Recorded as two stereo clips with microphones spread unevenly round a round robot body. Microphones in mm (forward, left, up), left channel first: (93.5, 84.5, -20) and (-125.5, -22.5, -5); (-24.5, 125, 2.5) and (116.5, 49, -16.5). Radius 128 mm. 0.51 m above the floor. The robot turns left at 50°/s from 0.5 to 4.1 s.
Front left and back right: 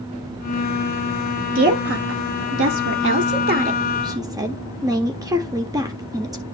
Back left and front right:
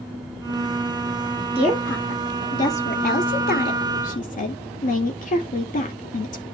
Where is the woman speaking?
100° right, 1.0 m; by 6.4 s 130° left, 1.0 m.